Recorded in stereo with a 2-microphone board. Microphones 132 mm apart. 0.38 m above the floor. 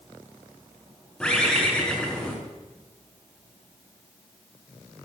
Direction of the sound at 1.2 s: 5° left (ahead or behind).